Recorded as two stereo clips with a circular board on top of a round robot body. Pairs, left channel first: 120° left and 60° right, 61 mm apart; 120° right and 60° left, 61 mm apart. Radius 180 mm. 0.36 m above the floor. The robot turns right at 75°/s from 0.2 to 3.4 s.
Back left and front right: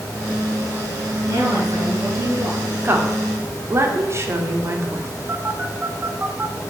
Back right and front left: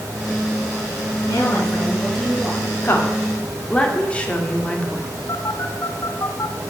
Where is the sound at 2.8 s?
95° right, 1.8 m; by 5.1 s 55° right, 1.8 m.